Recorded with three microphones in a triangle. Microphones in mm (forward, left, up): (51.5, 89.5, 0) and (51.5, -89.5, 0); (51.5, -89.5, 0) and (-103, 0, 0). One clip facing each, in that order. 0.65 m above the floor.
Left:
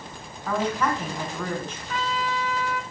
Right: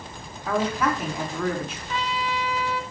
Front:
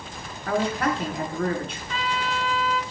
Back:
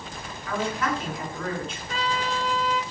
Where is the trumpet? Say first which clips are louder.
Left 1 dB, back 1 dB; 115° left, 2 m.